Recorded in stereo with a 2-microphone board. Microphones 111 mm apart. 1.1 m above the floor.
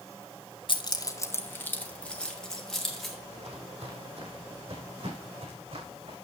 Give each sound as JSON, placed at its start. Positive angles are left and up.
{"t": 0.7, "sound": "keys jangling", "side_deg": 50, "distance_m": 0.7}
{"t": 3.3, "sound": "footsteps", "side_deg": -65, "distance_m": 2.5}